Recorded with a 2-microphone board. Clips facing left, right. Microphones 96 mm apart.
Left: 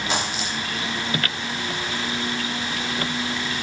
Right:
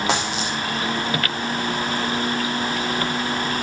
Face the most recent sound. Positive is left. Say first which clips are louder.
# right 3 dB
turn(degrees=-85)